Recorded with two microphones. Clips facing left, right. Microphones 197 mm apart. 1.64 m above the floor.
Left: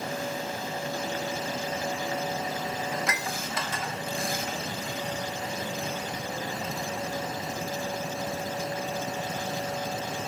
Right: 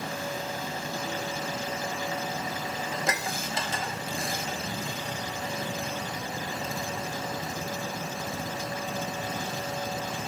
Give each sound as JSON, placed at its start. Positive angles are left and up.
{"t": 2.9, "sound": "dishes clattering", "side_deg": -30, "distance_m": 0.8}